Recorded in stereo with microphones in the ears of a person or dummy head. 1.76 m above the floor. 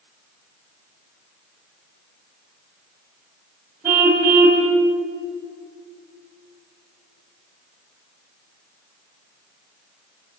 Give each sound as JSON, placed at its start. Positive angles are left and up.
{"t": 3.8, "sound": "a car horn", "side_deg": -10, "distance_m": 6.0}